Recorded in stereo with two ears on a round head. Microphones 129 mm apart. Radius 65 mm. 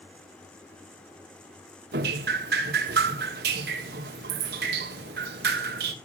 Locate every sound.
1.9 s dripping: 70° right (ahead or behind), 1.3 m